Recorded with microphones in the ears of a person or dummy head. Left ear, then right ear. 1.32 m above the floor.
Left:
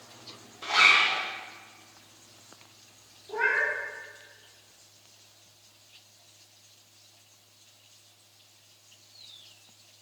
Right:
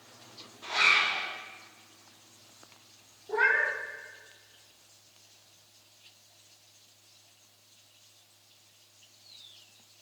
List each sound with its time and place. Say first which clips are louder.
0.6 s a zipper: left 4 dB; 55° left (ahead or behind), 1.5 m
3.3 s a cat meowing: right 1 dB; 40° right (ahead or behind), 1.9 m